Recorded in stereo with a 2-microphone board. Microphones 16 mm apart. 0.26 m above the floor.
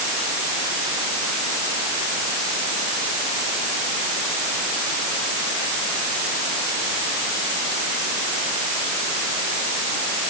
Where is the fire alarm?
I don't hear a fire alarm.